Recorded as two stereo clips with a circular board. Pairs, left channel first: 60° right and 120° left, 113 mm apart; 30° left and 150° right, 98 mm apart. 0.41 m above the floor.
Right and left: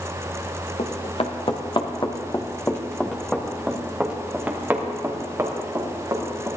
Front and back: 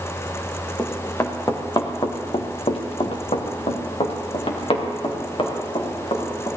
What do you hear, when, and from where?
0.8 s running footsteps: 40° right, 2 m; by 6.5 s 60° left, 4.5 m